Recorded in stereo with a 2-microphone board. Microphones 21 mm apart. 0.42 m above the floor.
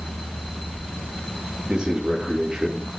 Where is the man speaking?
50° right (ahead or behind), 6 m.